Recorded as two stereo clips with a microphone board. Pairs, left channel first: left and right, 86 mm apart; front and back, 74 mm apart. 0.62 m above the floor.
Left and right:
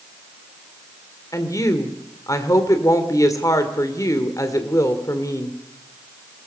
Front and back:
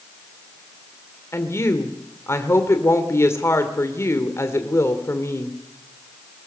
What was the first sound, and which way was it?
A woman speaking, 45° left.